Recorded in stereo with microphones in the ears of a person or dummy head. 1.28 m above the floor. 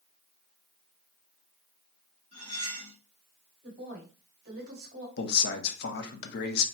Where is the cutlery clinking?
35° right (ahead or behind), 1.9 m.